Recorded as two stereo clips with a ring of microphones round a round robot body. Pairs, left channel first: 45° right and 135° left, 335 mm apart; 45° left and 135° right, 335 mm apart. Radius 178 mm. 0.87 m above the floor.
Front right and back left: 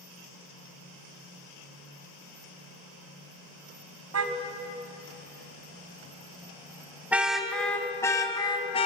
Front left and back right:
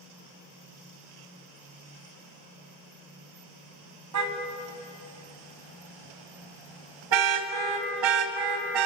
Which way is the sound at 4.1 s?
175° right.